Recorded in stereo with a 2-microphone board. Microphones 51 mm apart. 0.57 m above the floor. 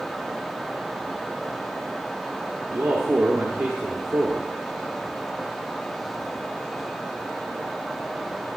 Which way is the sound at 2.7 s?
60° right (ahead or behind).